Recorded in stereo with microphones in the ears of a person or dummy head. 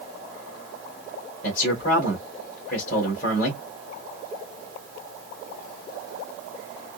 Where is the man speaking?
50° left (ahead or behind), 1.7 m.